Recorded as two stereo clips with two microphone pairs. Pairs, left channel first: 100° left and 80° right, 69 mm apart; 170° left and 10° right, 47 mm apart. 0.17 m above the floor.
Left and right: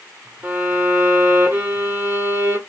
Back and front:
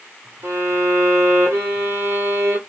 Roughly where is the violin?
Ahead.